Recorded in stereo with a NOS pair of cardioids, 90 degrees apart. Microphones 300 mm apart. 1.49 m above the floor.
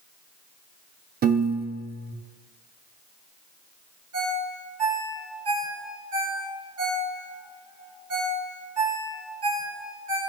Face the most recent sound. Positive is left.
turn(degrees=-50)